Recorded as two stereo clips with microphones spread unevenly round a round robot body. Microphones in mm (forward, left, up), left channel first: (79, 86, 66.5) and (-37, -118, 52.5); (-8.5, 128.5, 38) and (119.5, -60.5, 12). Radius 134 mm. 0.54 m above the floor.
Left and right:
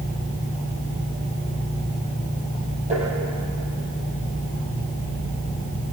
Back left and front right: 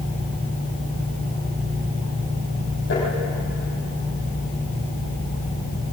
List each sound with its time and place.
2.9 s tapping: straight behind, 7.5 m